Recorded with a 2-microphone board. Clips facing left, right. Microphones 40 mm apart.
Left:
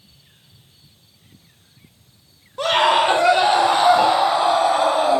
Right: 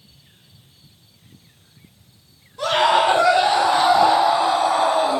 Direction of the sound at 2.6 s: 50° left (ahead or behind).